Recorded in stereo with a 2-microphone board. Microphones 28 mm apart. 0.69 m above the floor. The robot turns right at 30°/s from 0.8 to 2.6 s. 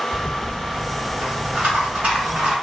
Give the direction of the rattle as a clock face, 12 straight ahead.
4 o'clock.